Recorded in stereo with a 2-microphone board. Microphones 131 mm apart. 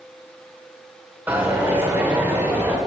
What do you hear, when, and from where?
1.3 s a dropped coin: 15° right (ahead or behind), 2.5 m